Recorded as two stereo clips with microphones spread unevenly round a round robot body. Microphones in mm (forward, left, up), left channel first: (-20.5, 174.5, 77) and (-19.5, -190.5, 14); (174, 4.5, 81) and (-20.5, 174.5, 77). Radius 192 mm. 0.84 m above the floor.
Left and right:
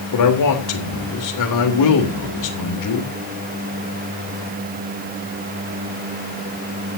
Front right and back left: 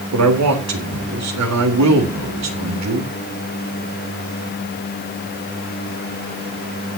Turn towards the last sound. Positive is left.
turn(degrees=130)